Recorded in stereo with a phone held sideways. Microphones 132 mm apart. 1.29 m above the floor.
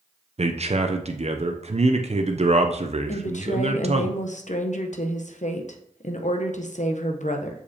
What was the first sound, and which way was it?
A man speaking, 55° right (ahead or behind).